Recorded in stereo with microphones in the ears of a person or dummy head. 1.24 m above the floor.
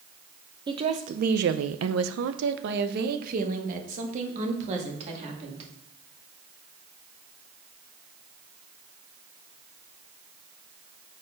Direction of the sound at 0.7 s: 25° right (ahead or behind).